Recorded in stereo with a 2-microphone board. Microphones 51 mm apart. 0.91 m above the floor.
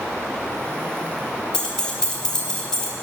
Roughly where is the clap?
No clap in this recording.